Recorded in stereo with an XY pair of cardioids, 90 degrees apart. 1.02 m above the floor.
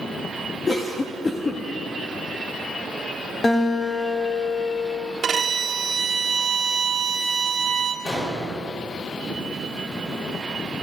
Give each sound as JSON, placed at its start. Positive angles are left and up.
{"t": 0.7, "sound": "a cough", "azimuth_deg": 35, "distance_m": 1.4}
{"t": 3.4, "sound": "a guitar", "azimuth_deg": 30, "distance_m": 2.5}
{"t": 5.2, "sound": "a violin", "azimuth_deg": -50, "distance_m": 1.6}
{"t": 8.1, "sound": "an explosion", "azimuth_deg": 50, "distance_m": 4.0}